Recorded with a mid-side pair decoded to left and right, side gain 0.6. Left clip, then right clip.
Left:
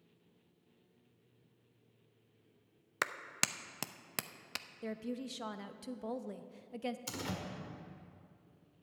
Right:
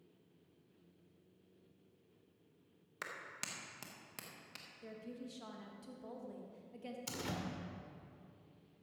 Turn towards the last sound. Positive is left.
turn(degrees=5)